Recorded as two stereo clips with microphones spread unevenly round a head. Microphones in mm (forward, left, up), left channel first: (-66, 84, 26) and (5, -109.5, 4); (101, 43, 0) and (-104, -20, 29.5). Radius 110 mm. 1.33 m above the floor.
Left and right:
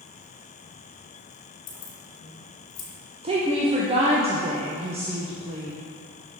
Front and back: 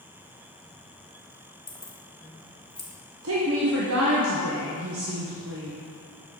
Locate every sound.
1.7 s keys jangling: 105° left, 1.1 m
3.2 s a woman speaking: 130° right, 0.8 m